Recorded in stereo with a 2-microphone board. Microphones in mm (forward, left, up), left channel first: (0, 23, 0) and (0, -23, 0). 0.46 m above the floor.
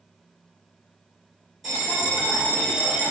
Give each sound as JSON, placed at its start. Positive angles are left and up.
{"t": 1.6, "sound": "a bell", "side_deg": 0, "distance_m": 2.0}